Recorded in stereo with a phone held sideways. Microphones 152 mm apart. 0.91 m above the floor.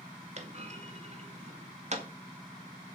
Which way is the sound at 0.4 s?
45° right (ahead or behind).